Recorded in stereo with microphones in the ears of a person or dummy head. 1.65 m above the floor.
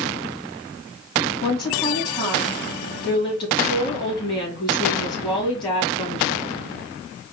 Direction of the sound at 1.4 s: 30° left (ahead or behind).